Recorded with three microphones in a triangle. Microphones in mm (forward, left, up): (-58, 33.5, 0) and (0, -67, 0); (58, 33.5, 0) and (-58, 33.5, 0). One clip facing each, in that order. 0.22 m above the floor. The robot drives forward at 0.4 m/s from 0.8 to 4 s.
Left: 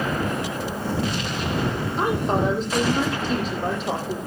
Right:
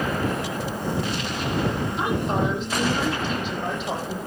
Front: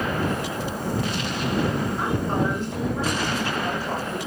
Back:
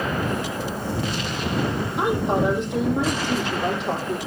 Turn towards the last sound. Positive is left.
turn(degrees=170)